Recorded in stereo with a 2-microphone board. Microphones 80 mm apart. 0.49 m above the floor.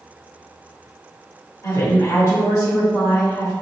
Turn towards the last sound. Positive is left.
turn(degrees=45)  # may be behind; listen again after turning